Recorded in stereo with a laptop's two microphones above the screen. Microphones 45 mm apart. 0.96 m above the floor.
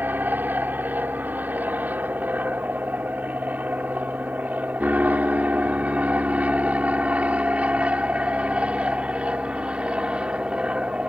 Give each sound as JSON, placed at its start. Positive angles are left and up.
{"t": 0.0, "sound": "an aircraft", "side_deg": -40}